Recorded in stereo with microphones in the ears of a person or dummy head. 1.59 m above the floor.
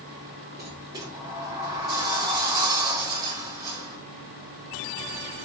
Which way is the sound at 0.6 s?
15° right (ahead or behind).